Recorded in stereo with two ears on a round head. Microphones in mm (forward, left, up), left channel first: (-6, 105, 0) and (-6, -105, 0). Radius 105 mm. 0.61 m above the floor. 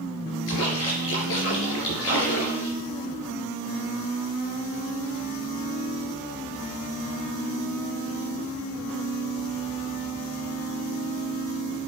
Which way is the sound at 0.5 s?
60° left (ahead or behind).